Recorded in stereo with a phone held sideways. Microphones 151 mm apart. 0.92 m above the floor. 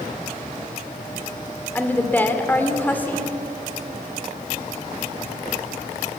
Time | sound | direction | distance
1.8 | a woman speaking | 15° left (ahead or behind) | 2.5 m